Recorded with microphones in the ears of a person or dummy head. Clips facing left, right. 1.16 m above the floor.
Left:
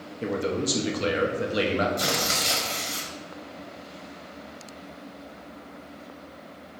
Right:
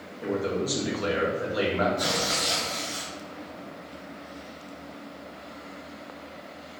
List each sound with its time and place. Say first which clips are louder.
0.2 s a man speaking: left 1 dB; 30° left (ahead or behind), 0.7 m
2.0 s tearing paper: even; 50° left (ahead or behind), 1.2 m